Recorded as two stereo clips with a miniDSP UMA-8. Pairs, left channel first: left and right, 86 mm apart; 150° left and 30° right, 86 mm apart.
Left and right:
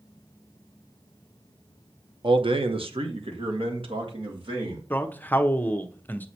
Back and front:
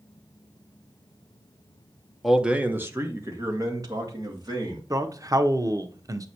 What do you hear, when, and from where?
2.2 s a man speaking: 120° right, 0.9 m; by 4.8 s 70° right, 3 m
4.9 s a man speaking: 20° left, 0.8 m